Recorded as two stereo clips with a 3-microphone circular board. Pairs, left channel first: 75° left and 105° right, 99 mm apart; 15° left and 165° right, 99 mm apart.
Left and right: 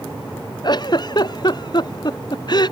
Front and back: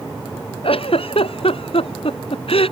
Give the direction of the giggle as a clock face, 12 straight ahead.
11 o'clock.